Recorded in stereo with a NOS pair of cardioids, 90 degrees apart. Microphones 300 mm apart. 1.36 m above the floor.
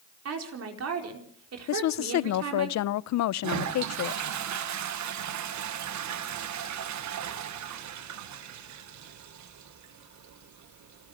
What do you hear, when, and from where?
0.2 s a woman speaking: 55° right, 4.5 m
1.7 s a woman speaking: 65° left, 0.7 m
3.4 s a toilet flushing: 65° right, 1.6 m